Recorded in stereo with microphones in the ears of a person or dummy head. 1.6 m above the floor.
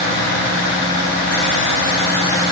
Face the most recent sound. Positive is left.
No sound to turn to.